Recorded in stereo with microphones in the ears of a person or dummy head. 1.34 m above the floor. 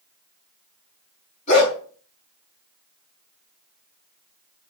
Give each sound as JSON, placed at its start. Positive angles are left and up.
{"t": 1.5, "sound": "a dog barking", "side_deg": 45, "distance_m": 5.0}